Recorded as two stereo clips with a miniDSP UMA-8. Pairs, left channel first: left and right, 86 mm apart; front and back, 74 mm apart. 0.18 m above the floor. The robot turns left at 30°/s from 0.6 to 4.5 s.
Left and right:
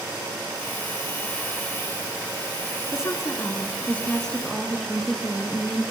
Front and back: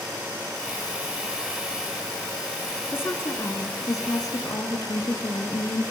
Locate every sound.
2.9 s a woman speaking: 50° left, 2.5 m; by 5.9 s straight ahead, 2.5 m